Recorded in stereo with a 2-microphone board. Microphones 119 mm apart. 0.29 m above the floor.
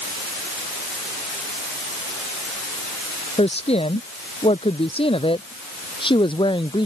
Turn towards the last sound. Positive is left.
turn(degrees=45)  # may be behind; listen again after turning